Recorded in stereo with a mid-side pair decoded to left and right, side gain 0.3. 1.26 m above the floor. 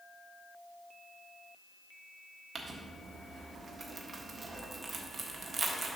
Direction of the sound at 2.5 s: 50° right.